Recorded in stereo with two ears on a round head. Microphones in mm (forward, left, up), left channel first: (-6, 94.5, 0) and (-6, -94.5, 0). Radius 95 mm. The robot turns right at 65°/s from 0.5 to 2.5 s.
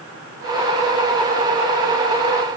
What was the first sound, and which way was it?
Only background noise.